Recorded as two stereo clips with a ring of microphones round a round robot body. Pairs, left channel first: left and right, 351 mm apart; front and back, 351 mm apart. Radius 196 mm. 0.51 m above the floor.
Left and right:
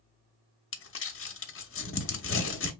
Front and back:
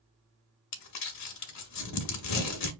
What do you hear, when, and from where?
0.7 s crumpling: 35° left, 0.8 m